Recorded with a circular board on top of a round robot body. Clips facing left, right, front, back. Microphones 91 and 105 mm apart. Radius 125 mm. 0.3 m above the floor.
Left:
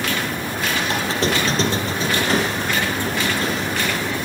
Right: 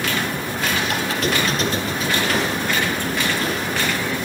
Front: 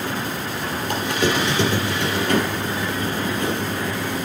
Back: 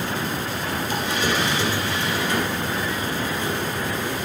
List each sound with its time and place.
0.9 s a squeak: 30° left, 3.5 m